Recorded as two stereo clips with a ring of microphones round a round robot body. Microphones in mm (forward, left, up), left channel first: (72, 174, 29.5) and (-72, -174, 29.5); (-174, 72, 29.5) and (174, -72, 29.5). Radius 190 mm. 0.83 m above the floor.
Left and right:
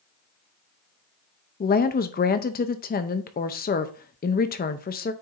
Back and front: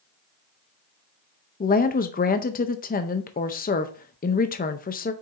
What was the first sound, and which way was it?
A woman speaking, 110° left.